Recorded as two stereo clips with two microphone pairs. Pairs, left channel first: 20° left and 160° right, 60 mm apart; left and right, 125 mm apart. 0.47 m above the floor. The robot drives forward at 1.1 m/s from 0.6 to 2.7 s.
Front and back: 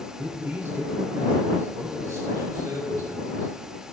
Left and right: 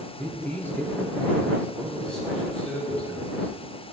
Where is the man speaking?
160° left, 1.2 m; by 3.5 s 175° left, 3.5 m.